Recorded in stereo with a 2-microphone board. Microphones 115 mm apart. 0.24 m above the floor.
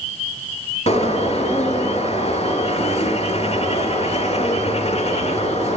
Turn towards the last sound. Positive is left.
turn(degrees=60)  # may be behind; listen again after turning